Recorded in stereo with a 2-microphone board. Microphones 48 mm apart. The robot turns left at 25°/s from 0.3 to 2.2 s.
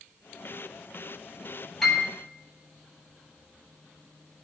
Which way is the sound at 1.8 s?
5° left (ahead or behind).